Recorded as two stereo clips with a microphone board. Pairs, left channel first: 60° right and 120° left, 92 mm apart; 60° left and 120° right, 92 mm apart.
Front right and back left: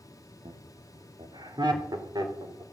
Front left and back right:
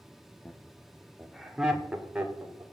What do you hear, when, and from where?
0.5 s laughter: 130° left, 1.7 m; by 2.6 s 165° left, 4 m